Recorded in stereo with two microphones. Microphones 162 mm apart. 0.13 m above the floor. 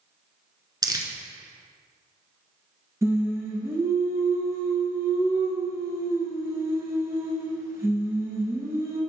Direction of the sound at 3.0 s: 20° right (ahead or behind).